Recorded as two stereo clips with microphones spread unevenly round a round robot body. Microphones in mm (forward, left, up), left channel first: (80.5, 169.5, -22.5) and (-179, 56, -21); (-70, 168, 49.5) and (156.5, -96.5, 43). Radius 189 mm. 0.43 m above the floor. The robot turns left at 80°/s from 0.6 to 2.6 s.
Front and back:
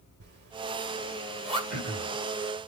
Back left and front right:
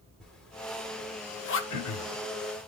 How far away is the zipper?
About 1.6 m.